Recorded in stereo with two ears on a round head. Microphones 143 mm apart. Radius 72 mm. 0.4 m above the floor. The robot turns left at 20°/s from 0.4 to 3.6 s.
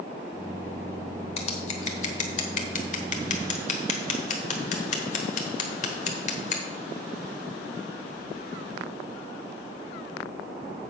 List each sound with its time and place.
1.4 s scissors: 40° left (ahead or behind), 1.3 m; by 6.6 s 45° left (ahead or behind), 1.3 m